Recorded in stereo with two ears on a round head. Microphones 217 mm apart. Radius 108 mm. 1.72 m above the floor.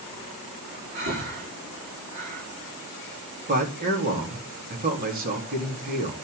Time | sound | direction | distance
0.9 | breathing | 45° right (ahead or behind) | 7 m
3.5 | a man speaking | 40° right (ahead or behind) | 4 m